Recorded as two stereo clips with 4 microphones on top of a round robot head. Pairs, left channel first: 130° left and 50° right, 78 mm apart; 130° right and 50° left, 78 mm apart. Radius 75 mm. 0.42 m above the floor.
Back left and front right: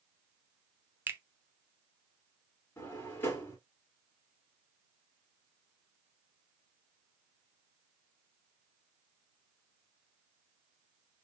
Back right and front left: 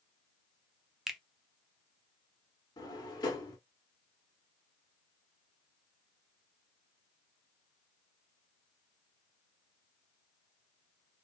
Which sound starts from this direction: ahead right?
A finger snap, at 1.1 s.